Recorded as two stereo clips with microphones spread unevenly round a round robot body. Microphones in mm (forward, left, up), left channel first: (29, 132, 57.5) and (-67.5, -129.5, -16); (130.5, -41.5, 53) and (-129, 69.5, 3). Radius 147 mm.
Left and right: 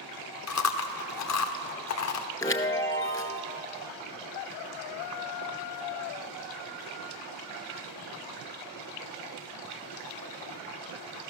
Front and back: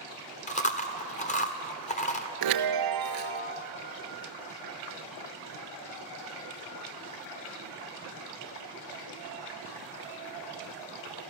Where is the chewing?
45° left, 1.5 m.